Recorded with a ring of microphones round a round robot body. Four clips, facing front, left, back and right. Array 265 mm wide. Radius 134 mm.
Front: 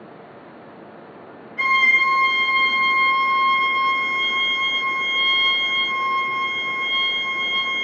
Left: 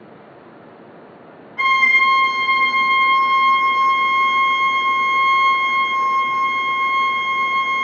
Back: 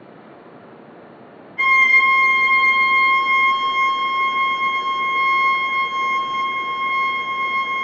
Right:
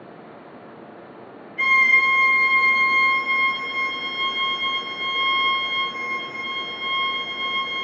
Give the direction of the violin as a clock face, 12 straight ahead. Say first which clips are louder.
Left 4 dB, back 3 dB; 9 o'clock.